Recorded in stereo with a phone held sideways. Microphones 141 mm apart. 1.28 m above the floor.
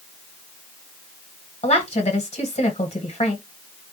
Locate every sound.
1.6 s a woman speaking: 60° left (ahead or behind), 1.4 m